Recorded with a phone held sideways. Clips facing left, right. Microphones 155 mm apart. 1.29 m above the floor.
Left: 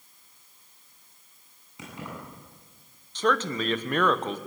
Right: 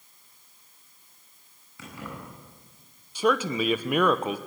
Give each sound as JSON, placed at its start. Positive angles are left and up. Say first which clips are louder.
{"t": 1.8, "sound": "keys jangling", "louder": "even", "side_deg": 20, "distance_m": 9.5}
{"t": 3.1, "sound": "a man speaking", "louder": "right 2 dB", "side_deg": -10, "distance_m": 1.1}